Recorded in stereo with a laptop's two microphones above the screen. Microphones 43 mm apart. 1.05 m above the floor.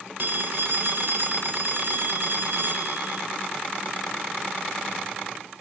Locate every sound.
0.2 s a phone ringing: 50° right (ahead or behind), 2 m